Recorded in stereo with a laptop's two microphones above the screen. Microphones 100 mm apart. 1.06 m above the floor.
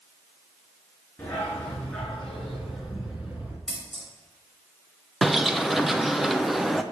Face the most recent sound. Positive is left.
turn(degrees=0)  # may be behind; listen again after turning